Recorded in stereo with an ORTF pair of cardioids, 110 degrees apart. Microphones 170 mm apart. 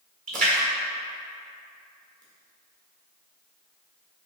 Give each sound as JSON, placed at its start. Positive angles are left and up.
{"t": 0.3, "sound": "a splash", "azimuth_deg": -50, "distance_m": 1.5}